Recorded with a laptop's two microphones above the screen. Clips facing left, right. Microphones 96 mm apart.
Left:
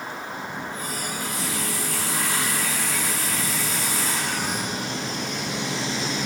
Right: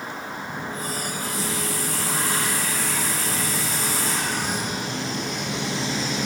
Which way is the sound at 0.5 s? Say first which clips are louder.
Right 1 dB; 35° right (ahead or behind).